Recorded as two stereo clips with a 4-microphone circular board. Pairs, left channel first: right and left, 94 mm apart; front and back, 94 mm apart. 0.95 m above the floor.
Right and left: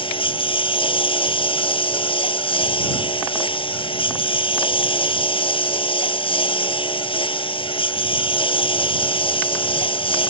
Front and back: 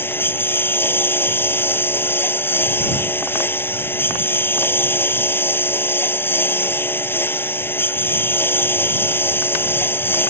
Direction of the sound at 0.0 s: 65° right.